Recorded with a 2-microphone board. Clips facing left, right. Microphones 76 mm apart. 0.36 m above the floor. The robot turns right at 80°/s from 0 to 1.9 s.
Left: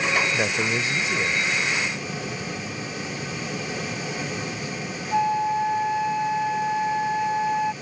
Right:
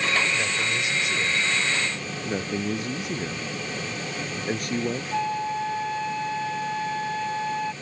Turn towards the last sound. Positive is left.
turn(degrees=20)  # may be behind; listen again after turning